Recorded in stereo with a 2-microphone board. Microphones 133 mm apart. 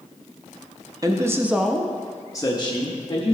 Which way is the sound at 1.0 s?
30° right (ahead or behind).